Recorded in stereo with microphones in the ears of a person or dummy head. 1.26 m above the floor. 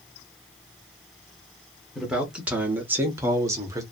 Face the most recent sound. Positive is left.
turn(degrees=-15)  # may be behind; listen again after turning